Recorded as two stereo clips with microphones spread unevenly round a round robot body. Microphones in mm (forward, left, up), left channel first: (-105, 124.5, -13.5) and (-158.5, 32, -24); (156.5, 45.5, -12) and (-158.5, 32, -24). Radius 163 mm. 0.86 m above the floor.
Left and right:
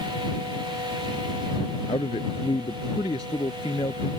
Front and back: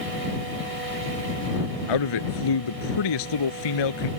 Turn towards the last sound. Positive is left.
turn(degrees=-10)